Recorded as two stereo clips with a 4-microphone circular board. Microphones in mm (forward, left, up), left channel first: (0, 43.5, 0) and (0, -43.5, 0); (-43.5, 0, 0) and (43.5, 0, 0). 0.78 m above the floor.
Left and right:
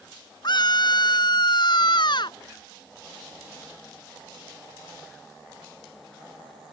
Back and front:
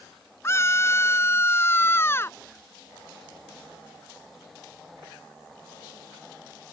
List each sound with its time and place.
0.4 s a scream: 120° left